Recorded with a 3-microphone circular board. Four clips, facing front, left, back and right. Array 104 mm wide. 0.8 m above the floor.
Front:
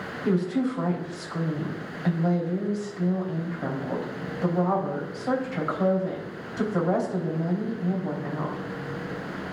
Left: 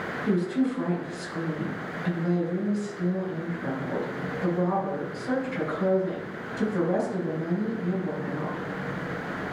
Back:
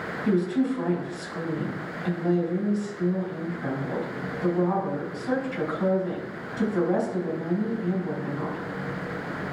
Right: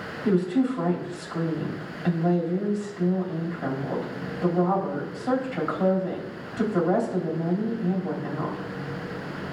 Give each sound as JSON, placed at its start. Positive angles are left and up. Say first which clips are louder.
{"t": 0.2, "sound": "a woman speaking", "louder": "right 3 dB, back 1 dB", "azimuth_deg": -40, "distance_m": 3.5}